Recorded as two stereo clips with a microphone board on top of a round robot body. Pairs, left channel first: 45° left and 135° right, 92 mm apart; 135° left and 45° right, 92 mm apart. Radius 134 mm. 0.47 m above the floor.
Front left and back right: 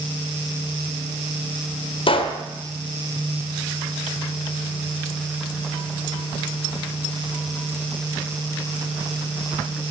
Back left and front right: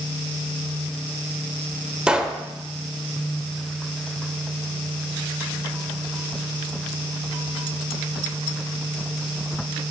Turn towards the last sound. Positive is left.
turn(degrees=35)